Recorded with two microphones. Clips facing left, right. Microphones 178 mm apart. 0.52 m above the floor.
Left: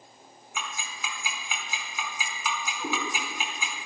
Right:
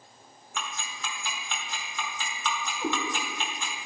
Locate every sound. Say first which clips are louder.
0.6 s ticking: even; 10° left (ahead or behind), 1.7 m
2.8 s a cat meowing: right 3 dB; 5° right (ahead or behind), 4 m